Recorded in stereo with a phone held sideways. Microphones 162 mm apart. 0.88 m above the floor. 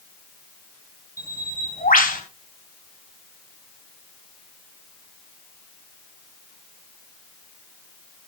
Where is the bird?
60° left (ahead or behind), 3 m.